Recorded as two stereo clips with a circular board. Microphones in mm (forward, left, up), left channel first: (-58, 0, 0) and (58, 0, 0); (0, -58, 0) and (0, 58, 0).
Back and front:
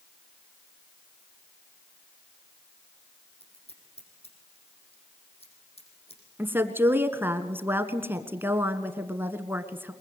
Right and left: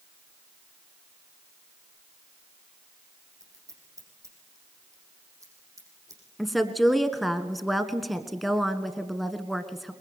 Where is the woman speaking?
Straight ahead, 1.4 m.